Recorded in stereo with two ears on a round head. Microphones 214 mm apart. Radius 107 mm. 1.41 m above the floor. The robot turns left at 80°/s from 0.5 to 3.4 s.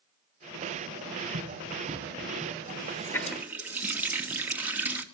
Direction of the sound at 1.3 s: 60° right (ahead or behind).